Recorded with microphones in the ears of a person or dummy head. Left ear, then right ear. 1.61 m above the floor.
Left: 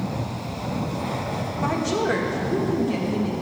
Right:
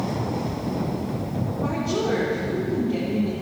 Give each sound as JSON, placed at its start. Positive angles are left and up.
{"t": 1.6, "sound": "a woman speaking", "side_deg": 65, "distance_m": 2.0}